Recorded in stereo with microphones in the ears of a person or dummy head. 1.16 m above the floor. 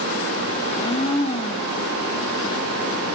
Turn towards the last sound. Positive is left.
turn(degrees=25)  # may be behind; listen again after turning